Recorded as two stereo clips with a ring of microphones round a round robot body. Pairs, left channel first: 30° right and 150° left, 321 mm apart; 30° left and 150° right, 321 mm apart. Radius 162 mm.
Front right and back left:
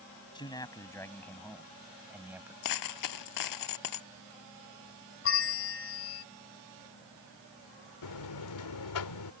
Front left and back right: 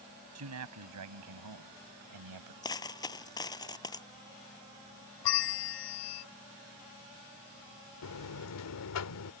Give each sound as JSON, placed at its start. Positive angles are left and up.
{"t": 0.3, "sound": "a man speaking", "azimuth_deg": -105}
{"t": 2.6, "sound": "a dropped coin", "azimuth_deg": -45}
{"t": 5.2, "sound": "a bell", "azimuth_deg": 20}
{"t": 8.0, "sound": "a buzzer", "azimuth_deg": -5}